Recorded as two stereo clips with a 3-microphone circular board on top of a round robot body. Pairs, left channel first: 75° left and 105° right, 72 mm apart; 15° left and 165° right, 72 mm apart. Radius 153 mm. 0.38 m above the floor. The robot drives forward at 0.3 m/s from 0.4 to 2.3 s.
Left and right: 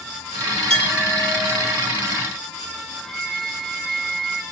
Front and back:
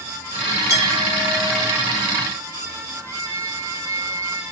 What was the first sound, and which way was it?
A clink, 150° left.